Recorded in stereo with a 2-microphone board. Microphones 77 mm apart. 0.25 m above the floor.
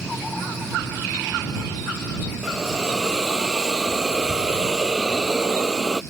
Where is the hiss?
5° right (ahead or behind).